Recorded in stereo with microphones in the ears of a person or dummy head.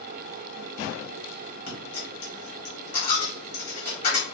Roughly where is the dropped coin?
Left.